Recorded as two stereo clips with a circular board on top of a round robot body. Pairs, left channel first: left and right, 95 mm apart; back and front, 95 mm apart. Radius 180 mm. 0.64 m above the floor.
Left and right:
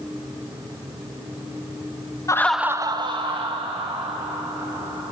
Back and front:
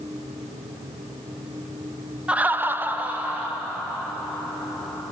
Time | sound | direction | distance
2.3 | laughter | 70° left | 0.8 m